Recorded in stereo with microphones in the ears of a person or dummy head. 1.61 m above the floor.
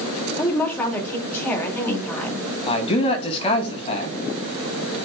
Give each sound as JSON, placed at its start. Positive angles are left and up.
{"t": 0.4, "sound": "a woman speaking", "side_deg": 10, "distance_m": 3.0}
{"t": 2.7, "sound": "a man speaking", "side_deg": 25, "distance_m": 2.0}